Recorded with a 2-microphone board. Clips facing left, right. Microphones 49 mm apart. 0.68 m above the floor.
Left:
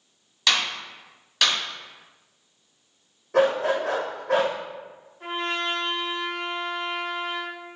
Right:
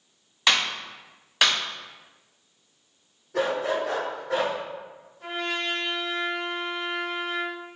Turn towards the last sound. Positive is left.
turn(degrees=30)  # may be behind; listen again after turning